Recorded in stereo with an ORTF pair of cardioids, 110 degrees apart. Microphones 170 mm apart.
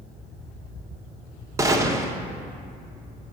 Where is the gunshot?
20° right, 0.7 m.